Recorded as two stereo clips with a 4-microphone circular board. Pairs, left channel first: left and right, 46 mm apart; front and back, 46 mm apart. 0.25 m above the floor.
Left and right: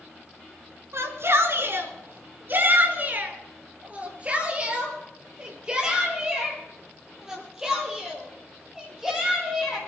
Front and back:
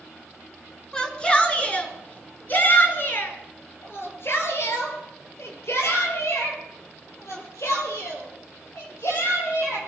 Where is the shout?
70° right, 3 m; by 9.8 s 5° right, 8 m.